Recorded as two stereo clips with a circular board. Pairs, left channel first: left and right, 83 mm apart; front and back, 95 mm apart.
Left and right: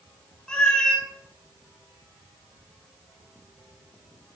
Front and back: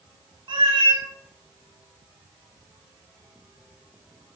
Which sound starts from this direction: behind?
A cat meowing, at 0.5 s.